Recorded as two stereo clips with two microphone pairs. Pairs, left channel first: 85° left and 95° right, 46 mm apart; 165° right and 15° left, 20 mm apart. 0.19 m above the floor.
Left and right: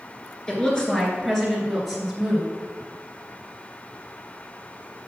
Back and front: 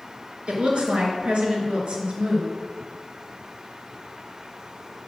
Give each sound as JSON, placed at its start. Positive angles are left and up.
{"t": 0.5, "sound": "a woman speaking", "azimuth_deg": 15, "distance_m": 2.5}